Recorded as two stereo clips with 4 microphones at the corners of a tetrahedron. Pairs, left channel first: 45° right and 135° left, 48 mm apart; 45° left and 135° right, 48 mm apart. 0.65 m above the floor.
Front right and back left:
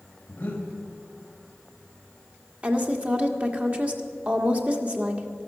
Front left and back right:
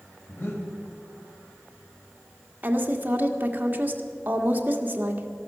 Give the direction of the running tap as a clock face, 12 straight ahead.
No running tap in this recording.